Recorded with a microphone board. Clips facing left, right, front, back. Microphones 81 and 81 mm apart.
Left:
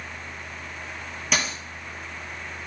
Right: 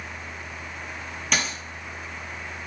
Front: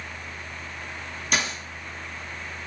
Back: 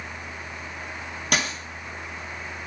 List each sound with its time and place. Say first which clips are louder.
1.3 s a dropped coin: even, back 1 dB; 175° left, 0.8 m